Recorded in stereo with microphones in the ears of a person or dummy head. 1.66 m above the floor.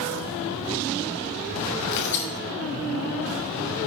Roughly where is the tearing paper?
Left.